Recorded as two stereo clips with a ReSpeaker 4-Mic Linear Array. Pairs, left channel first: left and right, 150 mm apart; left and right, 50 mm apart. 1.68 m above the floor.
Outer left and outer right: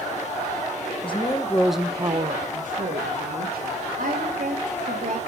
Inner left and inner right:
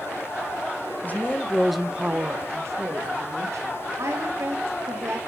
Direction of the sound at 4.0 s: 60° right (ahead or behind).